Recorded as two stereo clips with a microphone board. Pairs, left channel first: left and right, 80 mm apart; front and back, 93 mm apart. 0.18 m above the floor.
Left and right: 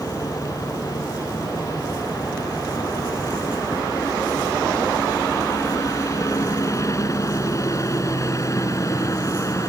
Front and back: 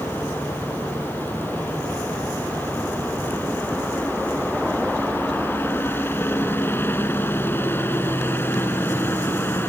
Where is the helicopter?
60° left.